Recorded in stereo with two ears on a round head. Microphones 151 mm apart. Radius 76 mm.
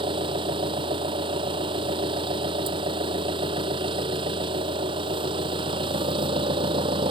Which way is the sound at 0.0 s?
30° right (ahead or behind).